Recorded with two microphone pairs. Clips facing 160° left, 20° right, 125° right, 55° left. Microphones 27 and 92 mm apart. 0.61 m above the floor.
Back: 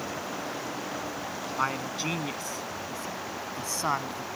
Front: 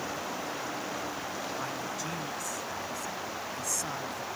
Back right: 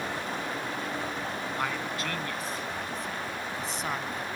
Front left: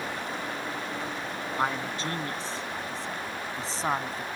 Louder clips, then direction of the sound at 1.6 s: Back 5 dB, front left 5 dB; 120° left.